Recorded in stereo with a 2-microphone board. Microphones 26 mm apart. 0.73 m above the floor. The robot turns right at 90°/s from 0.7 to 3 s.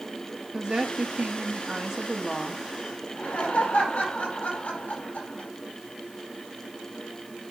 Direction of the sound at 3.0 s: 70° left (ahead or behind).